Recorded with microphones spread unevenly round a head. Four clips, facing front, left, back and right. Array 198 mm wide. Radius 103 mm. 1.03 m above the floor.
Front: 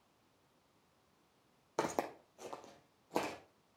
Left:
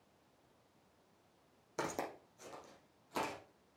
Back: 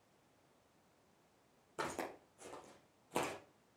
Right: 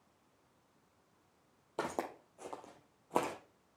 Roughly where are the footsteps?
Ahead.